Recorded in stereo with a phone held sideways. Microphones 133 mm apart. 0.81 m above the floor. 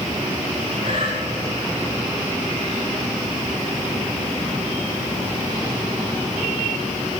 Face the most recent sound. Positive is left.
turn(degrees=-85)